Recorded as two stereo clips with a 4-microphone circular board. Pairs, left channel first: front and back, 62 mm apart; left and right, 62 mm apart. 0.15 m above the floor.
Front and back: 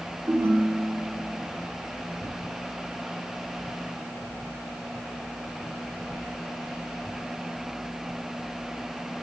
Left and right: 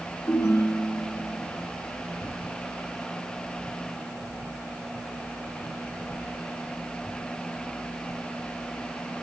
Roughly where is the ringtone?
Behind left.